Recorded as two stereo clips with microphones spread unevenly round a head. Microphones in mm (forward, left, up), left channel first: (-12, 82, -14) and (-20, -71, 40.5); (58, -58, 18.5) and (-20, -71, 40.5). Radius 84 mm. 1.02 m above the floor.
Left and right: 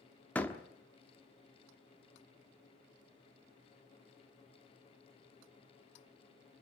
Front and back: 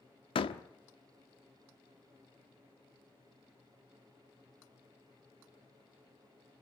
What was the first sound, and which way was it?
A door slam, straight ahead.